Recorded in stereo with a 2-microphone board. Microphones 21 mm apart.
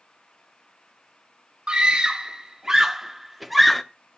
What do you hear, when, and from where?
1.7 s a scream: 45° right (ahead or behind), 1.3 m; by 3.8 s 10° left (ahead or behind), 1.0 m